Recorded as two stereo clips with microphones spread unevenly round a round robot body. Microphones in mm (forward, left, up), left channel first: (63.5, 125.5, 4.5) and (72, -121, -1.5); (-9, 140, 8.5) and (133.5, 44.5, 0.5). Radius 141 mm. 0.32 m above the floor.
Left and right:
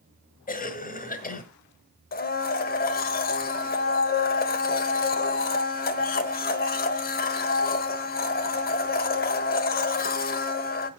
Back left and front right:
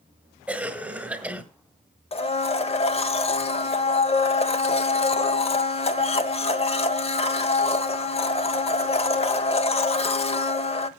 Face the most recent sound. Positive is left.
turn(degrees=115)